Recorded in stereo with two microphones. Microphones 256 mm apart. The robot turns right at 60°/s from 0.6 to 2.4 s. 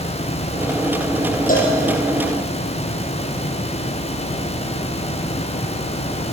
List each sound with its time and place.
1.5 s a cowbell: 30° left (ahead or behind), 5.5 m; by 1.8 s 45° left (ahead or behind), 5.5 m